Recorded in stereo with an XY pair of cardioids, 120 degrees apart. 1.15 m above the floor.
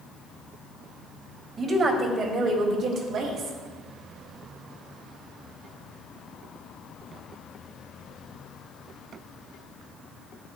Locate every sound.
1.6 s a woman speaking: 45° right, 2 m; by 3.6 s 75° right, 2.5 m